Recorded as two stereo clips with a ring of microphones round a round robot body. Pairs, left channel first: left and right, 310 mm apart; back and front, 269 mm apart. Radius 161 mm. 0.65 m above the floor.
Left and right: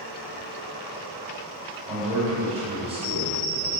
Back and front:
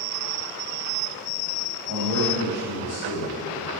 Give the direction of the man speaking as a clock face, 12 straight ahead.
5 o'clock.